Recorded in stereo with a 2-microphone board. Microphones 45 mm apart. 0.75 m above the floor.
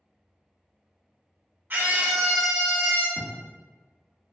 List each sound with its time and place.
1.7 s a scream: 45° right (ahead or behind), 0.8 m; by 3.1 s 45° left (ahead or behind), 1.0 m
3.2 s writing: 45° left (ahead or behind), 1.1 m